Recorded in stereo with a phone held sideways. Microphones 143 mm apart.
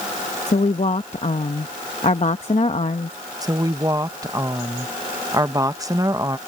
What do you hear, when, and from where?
0.5 s a woman speaking: 50° left (ahead or behind)
3.4 s a woman speaking: 25° right (ahead or behind)